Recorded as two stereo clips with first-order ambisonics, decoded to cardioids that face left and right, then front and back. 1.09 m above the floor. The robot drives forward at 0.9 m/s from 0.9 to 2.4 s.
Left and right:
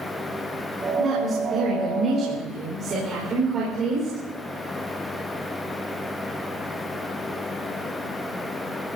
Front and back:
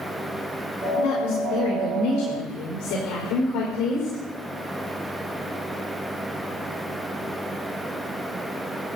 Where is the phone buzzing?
I don't hear a phone buzzing.